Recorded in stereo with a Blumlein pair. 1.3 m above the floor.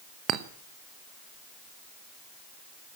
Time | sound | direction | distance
0.3 | a clink | 35° right | 0.8 m